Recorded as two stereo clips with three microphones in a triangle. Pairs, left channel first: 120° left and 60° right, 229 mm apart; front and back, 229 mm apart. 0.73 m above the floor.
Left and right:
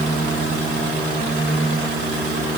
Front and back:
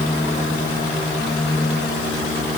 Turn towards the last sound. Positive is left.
No sound to turn to.